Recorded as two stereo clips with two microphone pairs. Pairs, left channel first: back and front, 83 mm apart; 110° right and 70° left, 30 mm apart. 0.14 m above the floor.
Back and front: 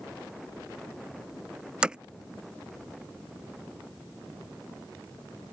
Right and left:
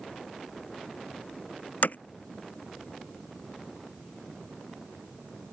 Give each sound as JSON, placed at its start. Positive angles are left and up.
{"t": 1.8, "sound": "hammering", "azimuth_deg": -80}